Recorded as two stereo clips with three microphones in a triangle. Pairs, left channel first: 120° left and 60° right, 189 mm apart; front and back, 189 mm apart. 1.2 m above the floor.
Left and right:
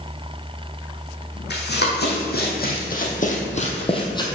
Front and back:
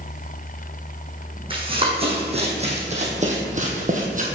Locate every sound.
1.5 s running footsteps: 120° left, 2.5 m; by 4.2 s 175° left, 1.6 m